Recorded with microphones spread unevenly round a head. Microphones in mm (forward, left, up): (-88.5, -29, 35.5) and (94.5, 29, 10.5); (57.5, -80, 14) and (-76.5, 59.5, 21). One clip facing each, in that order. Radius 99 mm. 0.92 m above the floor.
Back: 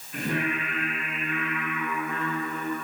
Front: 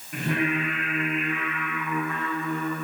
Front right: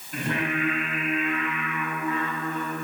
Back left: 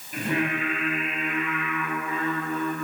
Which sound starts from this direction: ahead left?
Singing, at 0.1 s.